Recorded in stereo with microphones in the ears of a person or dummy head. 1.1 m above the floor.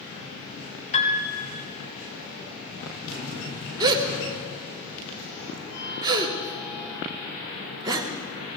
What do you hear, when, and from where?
0.9 s a piano: 35° left (ahead or behind), 2 m
3.8 s a gasp: 20° right (ahead or behind), 1.5 m